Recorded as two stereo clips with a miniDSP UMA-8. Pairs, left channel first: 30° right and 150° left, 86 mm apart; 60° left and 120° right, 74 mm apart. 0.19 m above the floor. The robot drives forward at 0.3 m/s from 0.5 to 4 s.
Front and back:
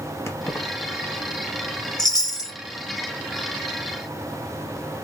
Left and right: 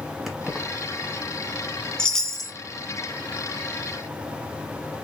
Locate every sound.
0.3 s keys jangling: 35° right, 0.9 m
2.0 s a chime: 20° right, 0.7 m; by 2.5 s 25° right, 0.6 m